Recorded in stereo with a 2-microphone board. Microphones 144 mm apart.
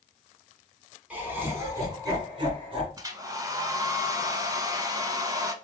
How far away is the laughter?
About 1.7 m.